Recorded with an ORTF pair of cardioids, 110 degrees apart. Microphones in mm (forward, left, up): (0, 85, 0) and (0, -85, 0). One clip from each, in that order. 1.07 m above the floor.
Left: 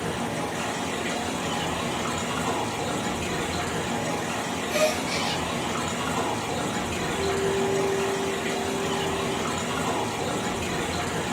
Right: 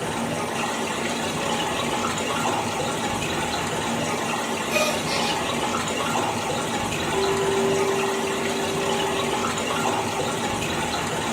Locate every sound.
0.0 s running water: 65° right, 1.0 m
4.7 s a gasp: 70° right, 1.5 m
7.1 s a clink: 45° right, 0.6 m